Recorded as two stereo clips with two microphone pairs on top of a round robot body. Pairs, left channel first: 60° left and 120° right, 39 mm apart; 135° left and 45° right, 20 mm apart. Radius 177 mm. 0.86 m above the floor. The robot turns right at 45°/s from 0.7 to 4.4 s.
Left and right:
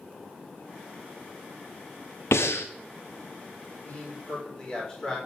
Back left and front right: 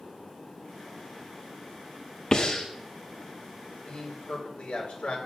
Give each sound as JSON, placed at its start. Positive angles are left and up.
{"t": 2.3, "sound": "breathing", "azimuth_deg": 60, "distance_m": 0.6}
{"t": 3.9, "sound": "a man speaking", "azimuth_deg": 105, "distance_m": 4.0}